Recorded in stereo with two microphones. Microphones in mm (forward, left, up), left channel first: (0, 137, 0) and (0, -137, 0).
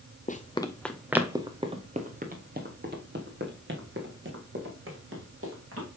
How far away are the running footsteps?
About 0.8 m.